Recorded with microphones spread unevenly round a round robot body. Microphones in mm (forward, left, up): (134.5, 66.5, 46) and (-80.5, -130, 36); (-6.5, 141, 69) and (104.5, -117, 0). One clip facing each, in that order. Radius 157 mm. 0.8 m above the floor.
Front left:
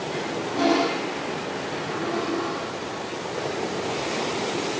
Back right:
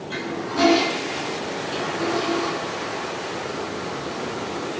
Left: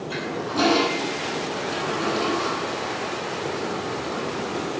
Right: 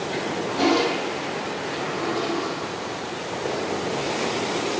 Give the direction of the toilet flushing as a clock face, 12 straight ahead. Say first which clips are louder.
Back right 3 dB, left 2 dB; 7 o'clock.